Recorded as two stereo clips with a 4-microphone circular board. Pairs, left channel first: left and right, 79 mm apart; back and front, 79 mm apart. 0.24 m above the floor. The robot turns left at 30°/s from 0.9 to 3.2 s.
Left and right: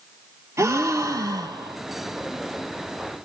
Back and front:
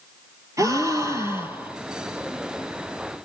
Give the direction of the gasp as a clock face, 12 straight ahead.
1 o'clock.